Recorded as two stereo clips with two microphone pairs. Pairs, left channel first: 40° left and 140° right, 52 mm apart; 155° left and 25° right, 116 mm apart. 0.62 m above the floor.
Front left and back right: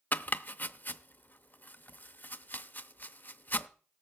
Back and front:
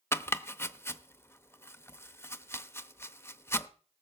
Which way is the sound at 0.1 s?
90° left.